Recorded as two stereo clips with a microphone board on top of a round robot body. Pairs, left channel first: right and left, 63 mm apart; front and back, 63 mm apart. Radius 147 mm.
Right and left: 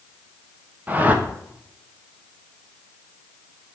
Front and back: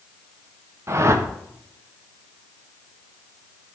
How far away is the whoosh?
About 1.5 m.